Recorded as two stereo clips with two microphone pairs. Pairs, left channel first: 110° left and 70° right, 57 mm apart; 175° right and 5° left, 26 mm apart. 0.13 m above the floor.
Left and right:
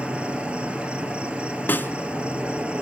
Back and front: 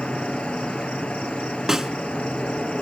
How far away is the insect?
About 2.0 m.